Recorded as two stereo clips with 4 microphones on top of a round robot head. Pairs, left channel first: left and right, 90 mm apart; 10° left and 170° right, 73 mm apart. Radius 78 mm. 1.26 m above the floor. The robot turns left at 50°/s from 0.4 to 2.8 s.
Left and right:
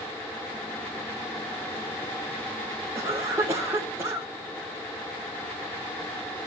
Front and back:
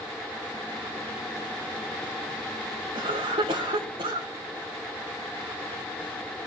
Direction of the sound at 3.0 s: 155° right.